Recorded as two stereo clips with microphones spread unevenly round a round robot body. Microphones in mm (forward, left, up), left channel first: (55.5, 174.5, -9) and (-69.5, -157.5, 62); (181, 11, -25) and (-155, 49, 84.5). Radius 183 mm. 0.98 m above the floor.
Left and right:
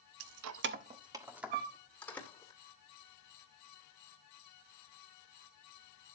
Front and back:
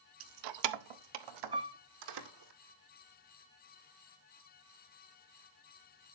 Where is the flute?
105° right, 1.4 m.